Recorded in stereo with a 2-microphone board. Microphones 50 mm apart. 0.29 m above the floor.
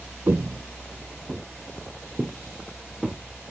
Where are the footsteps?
55° right (ahead or behind), 0.6 m; by 3.2 s 5° right (ahead or behind), 3 m.